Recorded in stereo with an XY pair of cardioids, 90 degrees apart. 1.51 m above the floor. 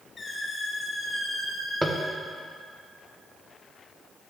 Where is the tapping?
5° right, 0.9 m.